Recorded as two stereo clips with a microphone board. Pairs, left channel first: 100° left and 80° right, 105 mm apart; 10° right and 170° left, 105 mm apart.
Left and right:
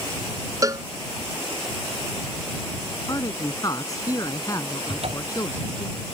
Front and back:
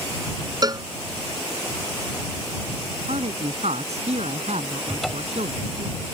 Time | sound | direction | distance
0.6 | a cowbell | 135° right | ?
3.1 | a man speaking | 160° left | ?
4.9 | a cupboard door | 100° right | ?